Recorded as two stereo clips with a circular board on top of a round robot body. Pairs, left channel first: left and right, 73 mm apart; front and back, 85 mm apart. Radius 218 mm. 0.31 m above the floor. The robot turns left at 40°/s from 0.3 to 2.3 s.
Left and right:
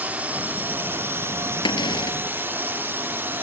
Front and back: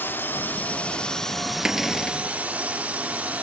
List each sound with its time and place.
0.0 s a drone: 40° right; by 3.4 s 120° right
1.6 s a cupboard door: 100° left; by 2.2 s 75° left